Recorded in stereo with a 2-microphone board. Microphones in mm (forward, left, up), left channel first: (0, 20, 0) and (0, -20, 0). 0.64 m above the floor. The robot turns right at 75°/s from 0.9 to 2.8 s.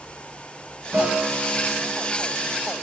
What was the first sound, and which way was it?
A guitar, 65° right.